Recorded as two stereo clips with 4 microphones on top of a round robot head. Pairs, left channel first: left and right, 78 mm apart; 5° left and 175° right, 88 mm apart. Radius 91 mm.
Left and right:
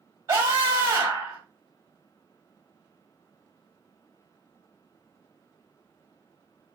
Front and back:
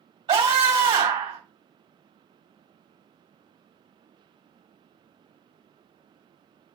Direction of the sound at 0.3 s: 150° right.